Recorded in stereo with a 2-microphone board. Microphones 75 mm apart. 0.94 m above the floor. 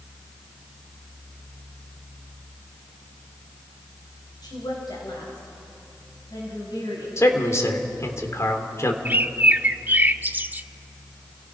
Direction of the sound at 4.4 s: 70° left (ahead or behind).